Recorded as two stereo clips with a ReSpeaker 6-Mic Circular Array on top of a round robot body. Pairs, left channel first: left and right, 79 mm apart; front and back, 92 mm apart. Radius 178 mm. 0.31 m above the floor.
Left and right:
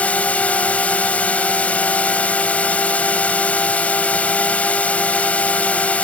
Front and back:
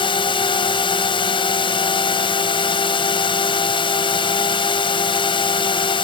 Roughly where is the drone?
Ahead.